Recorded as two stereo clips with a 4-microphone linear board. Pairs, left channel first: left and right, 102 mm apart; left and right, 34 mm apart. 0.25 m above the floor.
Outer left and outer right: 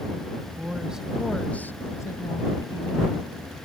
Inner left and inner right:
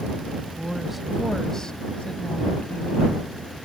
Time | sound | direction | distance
0.4 | a woman speaking | 20° right (ahead or behind) | ?